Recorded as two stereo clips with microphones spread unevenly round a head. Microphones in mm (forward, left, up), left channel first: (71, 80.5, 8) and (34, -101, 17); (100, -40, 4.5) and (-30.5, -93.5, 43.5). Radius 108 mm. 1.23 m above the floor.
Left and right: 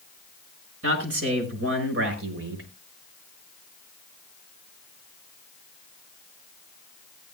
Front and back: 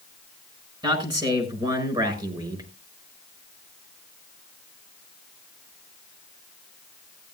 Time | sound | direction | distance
0.8 | a man speaking | 100° right | 6 m